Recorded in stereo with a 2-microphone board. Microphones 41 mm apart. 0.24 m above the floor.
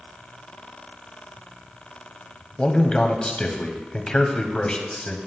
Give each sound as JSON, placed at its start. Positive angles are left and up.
{"t": 2.6, "sound": "a man speaking", "side_deg": 25, "distance_m": 1.0}